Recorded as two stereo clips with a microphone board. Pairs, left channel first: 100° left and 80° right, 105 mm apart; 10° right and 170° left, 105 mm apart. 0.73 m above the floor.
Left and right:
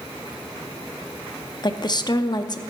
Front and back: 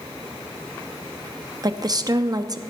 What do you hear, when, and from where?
1.6 s a woman speaking: 130° left, 0.6 m